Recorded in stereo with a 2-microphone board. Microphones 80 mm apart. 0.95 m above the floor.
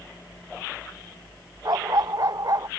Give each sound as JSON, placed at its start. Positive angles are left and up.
{"t": 1.6, "sound": "a dog barking", "side_deg": -55}